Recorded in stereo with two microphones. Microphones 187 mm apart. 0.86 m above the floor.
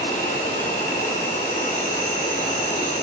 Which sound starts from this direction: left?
An insect, at 0.0 s.